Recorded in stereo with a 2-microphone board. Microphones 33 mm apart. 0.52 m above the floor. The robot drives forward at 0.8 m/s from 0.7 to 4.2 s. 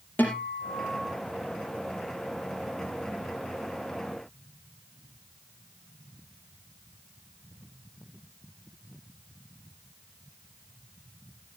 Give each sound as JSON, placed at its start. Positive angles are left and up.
{"t": 0.2, "sound": "a guitar", "side_deg": 65, "distance_m": 5.0}